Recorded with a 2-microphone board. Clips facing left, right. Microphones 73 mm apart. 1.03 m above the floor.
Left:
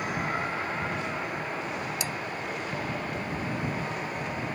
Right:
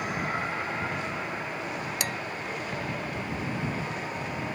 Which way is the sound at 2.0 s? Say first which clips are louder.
Right 1 dB; 65° right (ahead or behind).